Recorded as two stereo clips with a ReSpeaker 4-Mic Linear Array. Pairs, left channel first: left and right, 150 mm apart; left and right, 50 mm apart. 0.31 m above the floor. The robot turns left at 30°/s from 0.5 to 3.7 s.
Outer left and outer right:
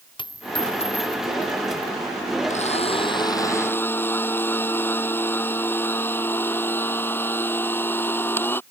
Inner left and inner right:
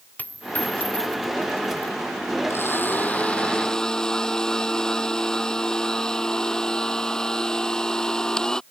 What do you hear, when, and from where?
0.2 s a dropped coin: 30° left (ahead or behind); by 1.9 s 75° left (ahead or behind)
2.5 s a blender: 50° left; by 8.6 s 15° left